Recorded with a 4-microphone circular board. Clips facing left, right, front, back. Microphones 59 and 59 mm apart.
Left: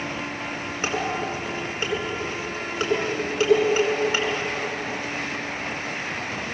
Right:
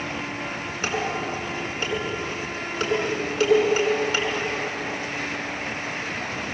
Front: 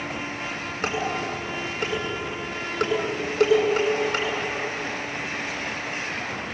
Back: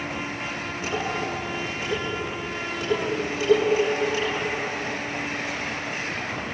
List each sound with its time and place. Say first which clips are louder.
0.8 s dishes clattering: even, front 1 dB; 25° left, 9 m